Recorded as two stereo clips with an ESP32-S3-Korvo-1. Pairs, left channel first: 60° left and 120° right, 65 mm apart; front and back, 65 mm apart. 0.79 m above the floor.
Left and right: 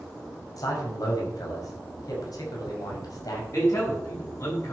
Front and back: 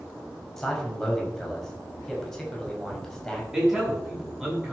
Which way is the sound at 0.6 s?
85° left.